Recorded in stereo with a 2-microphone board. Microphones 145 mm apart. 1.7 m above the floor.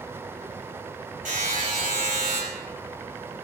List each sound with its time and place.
1.2 s a buzzer: 5° right (ahead or behind), 1.8 m